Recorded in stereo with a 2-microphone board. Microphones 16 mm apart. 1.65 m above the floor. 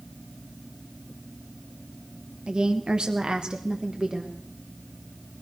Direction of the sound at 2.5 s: 60° right (ahead or behind).